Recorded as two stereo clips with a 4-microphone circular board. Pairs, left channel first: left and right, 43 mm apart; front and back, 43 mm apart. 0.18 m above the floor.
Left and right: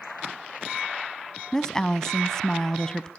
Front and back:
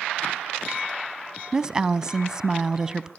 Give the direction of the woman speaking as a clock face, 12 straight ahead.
7 o'clock.